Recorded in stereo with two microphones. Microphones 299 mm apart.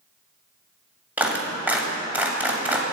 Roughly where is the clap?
Centre.